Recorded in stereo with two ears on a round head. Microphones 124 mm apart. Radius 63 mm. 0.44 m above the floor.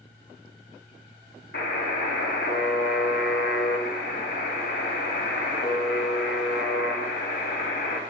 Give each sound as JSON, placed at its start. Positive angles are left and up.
{"t": 1.5, "sound": "a buzzer", "side_deg": 85, "distance_m": 0.9}